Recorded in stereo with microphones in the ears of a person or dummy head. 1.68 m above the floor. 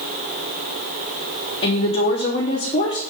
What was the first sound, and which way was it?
A woman speaking, 30° left (ahead or behind).